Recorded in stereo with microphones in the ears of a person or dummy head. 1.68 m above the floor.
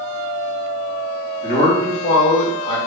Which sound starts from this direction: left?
A man speaking, at 1.4 s.